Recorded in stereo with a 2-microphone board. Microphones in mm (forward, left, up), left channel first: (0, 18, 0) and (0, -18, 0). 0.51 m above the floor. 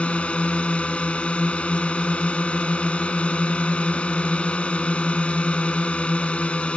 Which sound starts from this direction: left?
A drone, at 0.0 s.